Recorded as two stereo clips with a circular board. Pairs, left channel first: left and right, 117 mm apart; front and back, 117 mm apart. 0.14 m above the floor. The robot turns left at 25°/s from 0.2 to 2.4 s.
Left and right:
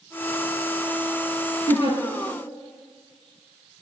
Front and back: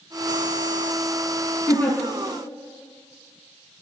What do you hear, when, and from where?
1.7 s a giggle: 80° left, 1.4 m; by 2.0 s 75° left, 1.4 m